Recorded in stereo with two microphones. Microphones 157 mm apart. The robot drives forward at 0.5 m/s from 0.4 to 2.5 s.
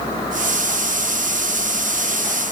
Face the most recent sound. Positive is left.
No sound to turn to.